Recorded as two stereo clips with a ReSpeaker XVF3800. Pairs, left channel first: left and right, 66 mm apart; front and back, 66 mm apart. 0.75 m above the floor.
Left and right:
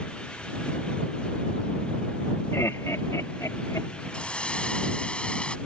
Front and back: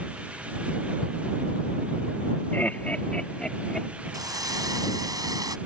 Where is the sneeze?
I don't hear a sneeze.